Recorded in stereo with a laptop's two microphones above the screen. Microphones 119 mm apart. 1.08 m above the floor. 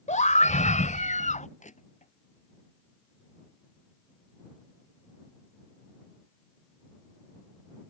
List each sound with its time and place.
0.1 s a scream: 90° left
1.6 s crushing: 85° left